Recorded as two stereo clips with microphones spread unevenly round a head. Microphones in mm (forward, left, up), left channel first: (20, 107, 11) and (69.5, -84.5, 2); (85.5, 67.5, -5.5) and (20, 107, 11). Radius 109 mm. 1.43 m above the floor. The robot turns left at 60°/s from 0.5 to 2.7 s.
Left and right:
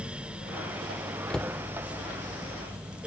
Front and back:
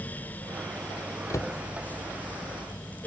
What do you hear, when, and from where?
1.3 s a cupboard door: 20° left; by 1.6 s 5° left